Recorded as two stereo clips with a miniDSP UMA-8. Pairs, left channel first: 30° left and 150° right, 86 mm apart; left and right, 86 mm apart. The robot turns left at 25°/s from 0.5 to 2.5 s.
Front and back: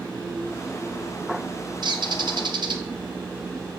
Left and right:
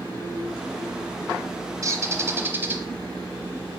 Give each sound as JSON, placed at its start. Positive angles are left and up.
{"t": 1.8, "sound": "a bird", "azimuth_deg": -135, "distance_m": 0.6}